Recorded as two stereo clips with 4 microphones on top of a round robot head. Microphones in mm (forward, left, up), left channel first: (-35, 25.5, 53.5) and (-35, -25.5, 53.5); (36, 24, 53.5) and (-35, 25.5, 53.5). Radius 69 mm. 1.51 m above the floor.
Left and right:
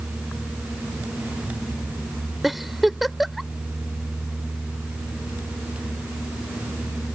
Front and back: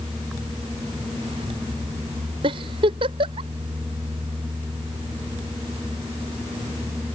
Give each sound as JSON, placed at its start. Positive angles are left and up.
{"t": 2.4, "sound": "a giggle", "azimuth_deg": -175}